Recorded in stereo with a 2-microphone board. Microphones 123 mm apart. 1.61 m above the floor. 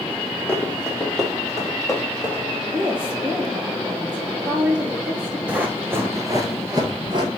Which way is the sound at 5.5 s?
10° right (ahead or behind).